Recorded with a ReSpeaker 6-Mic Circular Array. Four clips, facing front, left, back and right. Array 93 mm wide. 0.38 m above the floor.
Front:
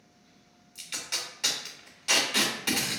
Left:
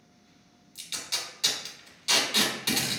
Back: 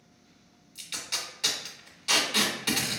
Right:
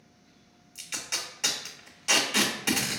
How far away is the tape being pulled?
About 0.7 m.